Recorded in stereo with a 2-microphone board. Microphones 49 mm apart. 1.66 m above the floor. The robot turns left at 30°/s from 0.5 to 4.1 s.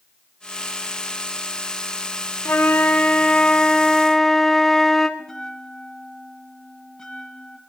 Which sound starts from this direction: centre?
A bell, at 5.2 s.